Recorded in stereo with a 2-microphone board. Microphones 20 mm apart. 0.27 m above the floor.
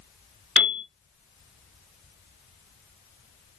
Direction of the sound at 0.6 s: 70° right (ahead or behind).